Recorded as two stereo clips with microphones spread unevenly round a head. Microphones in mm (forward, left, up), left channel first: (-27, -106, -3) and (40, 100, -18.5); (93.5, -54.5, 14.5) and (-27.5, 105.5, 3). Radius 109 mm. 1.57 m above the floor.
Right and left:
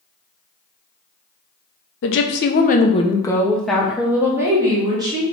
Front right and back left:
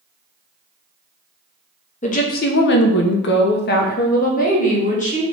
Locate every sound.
2.0 s a woman speaking: 105° right, 0.6 m; by 5.2 s straight ahead, 1.5 m